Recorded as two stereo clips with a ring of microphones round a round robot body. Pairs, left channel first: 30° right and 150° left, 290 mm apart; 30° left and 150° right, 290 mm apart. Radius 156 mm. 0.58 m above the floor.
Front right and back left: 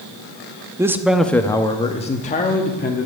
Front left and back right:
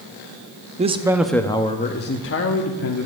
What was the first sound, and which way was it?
A man speaking, 145° right.